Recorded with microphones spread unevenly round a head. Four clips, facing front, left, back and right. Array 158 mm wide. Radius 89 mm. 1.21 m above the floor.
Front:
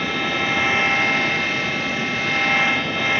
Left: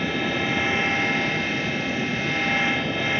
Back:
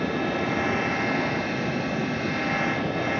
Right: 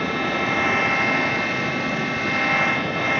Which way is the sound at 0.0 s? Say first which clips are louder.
Right 2 dB, front 1 dB; 45° right.